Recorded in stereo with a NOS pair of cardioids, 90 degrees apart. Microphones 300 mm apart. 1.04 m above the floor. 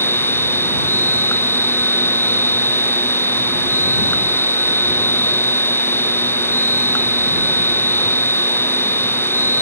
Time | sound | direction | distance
0.0 | a machine running | 5° left | ?